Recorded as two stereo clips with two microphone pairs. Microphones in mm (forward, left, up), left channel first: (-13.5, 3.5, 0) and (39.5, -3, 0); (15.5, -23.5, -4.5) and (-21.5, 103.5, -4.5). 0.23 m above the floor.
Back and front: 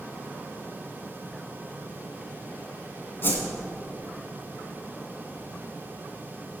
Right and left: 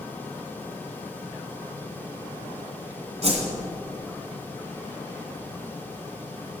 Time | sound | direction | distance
3.2 | a whoosh | 130° left | 2 m